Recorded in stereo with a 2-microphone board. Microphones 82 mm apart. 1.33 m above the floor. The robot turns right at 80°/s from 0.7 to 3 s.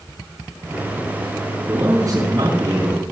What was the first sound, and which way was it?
A man speaking, 160° right.